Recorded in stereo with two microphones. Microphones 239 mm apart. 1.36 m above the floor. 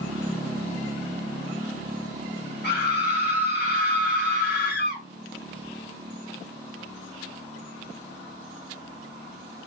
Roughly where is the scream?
Left.